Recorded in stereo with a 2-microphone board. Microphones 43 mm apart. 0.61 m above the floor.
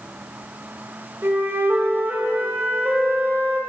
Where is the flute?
65° right (ahead or behind), 2 m.